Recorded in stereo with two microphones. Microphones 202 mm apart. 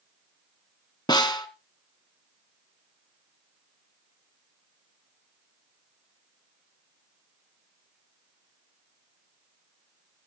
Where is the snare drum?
20° left (ahead or behind), 1.1 m.